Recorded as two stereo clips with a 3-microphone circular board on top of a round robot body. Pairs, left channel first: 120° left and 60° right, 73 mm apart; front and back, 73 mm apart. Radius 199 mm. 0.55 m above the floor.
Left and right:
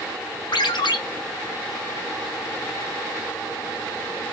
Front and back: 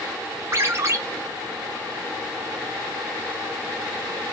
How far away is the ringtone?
About 1.1 m.